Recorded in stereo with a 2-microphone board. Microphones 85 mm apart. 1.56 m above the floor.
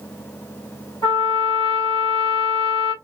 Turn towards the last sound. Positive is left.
turn(degrees=65)  # may be behind; listen again after turning